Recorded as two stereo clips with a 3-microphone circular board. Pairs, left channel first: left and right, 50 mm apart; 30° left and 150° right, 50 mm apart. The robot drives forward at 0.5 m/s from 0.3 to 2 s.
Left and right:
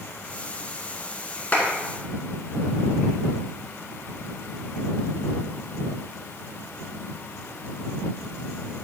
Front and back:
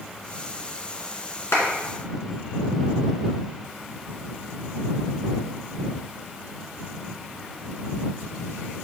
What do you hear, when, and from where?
1.5 s a clap: 35° left, 2.5 m